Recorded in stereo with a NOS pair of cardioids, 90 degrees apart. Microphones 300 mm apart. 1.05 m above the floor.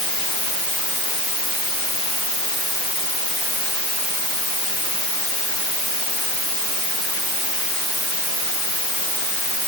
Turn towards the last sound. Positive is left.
No sound to turn to.